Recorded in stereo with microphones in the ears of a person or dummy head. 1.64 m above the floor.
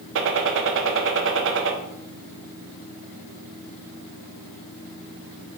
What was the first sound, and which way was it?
A gunshot, 65° right (ahead or behind).